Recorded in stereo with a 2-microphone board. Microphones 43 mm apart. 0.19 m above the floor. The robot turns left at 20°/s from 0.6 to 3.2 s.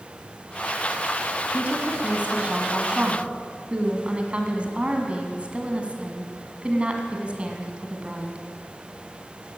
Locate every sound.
1.5 s a woman speaking: 90° right, 1.9 m; by 8.4 s 125° right, 1.9 m